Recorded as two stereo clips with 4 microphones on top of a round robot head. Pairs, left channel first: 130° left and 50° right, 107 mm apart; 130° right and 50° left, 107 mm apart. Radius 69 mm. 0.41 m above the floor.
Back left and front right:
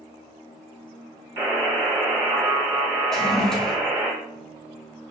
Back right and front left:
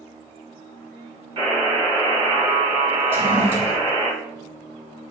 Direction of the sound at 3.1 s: 50° left.